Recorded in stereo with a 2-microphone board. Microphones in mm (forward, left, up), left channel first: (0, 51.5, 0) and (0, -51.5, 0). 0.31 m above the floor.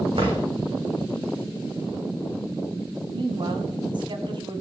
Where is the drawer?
75° right (ahead or behind), 8.5 m.